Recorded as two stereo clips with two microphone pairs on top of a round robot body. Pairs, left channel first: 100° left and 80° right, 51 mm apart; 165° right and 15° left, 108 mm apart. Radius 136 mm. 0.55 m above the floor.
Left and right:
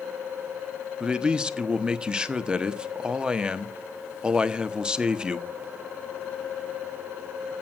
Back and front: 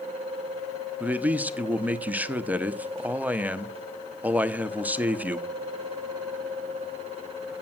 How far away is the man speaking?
About 1.0 m.